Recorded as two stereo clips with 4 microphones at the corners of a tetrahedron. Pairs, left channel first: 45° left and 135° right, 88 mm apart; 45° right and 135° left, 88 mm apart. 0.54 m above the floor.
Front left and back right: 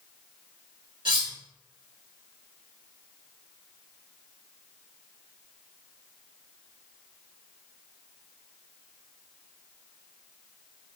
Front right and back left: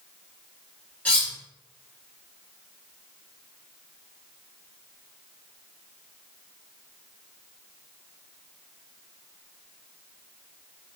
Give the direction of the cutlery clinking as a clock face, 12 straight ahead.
4 o'clock.